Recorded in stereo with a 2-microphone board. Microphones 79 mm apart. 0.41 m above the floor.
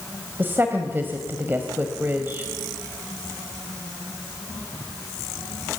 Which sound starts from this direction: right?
A woman speaking, at 0.4 s.